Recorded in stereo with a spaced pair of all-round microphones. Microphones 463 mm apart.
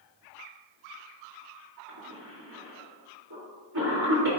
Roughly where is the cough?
Right.